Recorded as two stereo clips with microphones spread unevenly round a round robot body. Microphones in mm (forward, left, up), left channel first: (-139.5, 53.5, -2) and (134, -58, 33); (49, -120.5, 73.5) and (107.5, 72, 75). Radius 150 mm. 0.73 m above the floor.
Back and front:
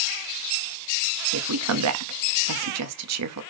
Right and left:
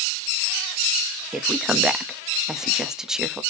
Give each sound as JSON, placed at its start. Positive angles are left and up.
{"t": 1.3, "sound": "a woman speaking", "azimuth_deg": -15, "distance_m": 1.1}